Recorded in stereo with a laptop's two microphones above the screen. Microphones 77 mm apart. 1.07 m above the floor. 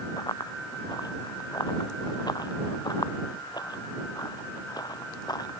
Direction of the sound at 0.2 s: 65° left (ahead or behind).